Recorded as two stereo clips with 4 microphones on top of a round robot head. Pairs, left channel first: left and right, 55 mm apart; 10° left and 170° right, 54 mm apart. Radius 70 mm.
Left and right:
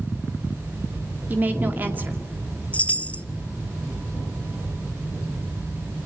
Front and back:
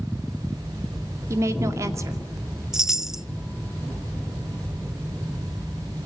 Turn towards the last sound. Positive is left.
turn(degrees=120)